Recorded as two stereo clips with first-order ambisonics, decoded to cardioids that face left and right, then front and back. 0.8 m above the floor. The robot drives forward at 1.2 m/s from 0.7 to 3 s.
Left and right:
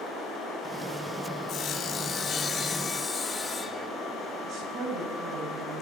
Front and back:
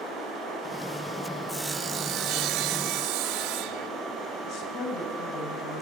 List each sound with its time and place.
1.5 s sawing: 85° left, 0.9 m; by 3.9 s 165° left, 2.0 m
4.5 s a woman speaking: 35° right, 7 m